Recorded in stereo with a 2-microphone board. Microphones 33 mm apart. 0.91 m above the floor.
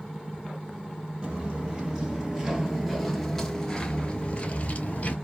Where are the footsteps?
30° right (ahead or behind), 1.6 m; by 5.2 s 45° left (ahead or behind), 1.2 m.